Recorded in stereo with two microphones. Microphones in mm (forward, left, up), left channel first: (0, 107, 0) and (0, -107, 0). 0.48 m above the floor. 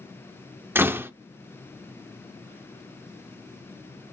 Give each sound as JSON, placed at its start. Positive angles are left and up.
{"t": 0.8, "sound": "a door slam", "side_deg": -10, "distance_m": 0.5}